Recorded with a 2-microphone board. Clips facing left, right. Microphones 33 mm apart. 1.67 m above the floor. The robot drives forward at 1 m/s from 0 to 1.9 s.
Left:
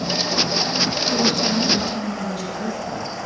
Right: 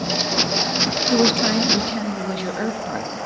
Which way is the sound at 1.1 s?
55° right (ahead or behind).